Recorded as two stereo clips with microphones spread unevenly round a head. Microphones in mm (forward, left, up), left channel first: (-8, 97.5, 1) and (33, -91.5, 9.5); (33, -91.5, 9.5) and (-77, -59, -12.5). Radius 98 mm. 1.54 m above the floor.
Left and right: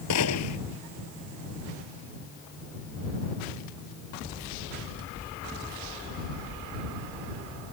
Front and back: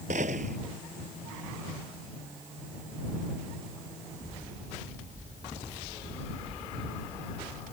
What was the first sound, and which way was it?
A gunshot, 105° left.